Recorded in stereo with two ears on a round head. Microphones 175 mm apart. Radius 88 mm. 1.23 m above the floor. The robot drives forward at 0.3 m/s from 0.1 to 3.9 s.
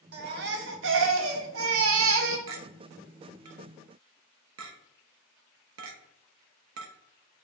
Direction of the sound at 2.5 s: 70° right (ahead or behind).